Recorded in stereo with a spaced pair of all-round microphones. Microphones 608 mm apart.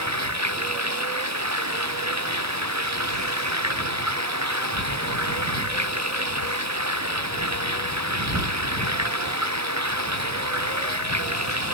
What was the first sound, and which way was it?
Running water, 25° right (ahead or behind).